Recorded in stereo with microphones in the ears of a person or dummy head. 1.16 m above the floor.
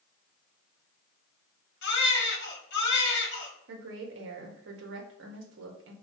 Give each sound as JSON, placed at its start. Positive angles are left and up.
{"t": 1.8, "sound": "a baby crying", "side_deg": 55, "distance_m": 0.9}
{"t": 3.7, "sound": "a woman speaking", "side_deg": -65, "distance_m": 0.8}